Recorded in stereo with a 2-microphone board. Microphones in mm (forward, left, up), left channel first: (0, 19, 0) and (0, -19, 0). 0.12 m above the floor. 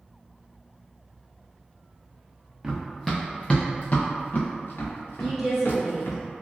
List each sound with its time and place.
2.6 s running footsteps: 10° right (ahead or behind), 0.8 m; by 6.2 s 80° left, 1.6 m
5.2 s a woman speaking: 5° left (ahead or behind), 1.6 m